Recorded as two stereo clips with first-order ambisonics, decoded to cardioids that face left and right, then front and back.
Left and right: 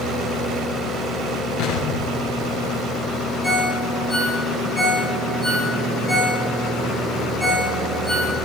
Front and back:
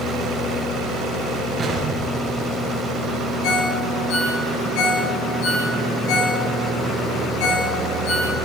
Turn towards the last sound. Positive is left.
turn(degrees=5)